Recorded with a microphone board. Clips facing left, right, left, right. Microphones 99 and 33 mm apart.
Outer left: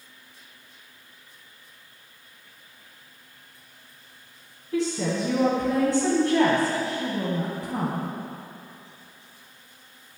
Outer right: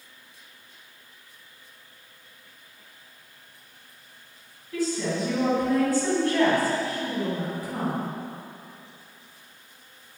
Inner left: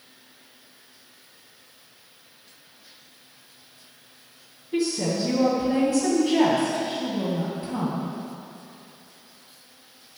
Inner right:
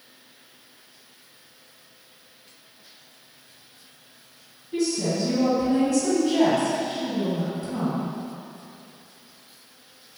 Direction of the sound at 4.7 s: 25° left (ahead or behind).